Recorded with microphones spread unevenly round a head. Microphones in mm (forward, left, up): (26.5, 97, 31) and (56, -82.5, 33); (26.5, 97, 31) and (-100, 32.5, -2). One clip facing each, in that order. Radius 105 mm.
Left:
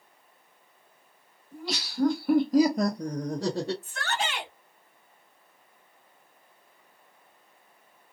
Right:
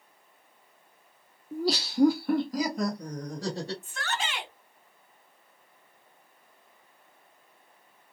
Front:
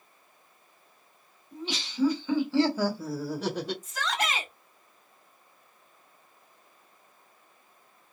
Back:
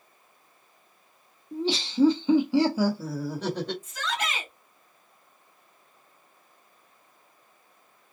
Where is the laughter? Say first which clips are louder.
Right 6 dB, back 9 dB; 115° right, 0.7 m; by 3.7 s 120° left, 1.1 m.